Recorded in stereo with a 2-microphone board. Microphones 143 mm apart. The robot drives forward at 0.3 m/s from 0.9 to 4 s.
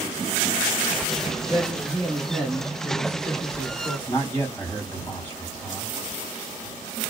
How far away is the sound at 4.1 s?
About 1.7 m.